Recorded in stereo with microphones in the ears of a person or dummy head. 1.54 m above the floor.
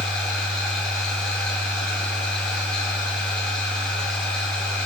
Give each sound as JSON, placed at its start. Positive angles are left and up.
{"t": 0.0, "sound": "a machine running", "side_deg": 5, "distance_m": 2.0}